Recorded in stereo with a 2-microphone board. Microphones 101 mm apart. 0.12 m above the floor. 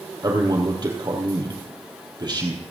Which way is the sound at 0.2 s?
40° right (ahead or behind).